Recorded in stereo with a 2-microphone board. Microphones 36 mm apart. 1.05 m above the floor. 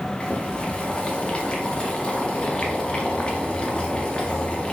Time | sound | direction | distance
0.2 | boiling | 25° left (ahead or behind) | 0.5 m